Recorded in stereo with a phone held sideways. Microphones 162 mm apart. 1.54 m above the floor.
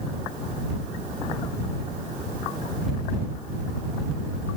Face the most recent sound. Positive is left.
No sound to turn to.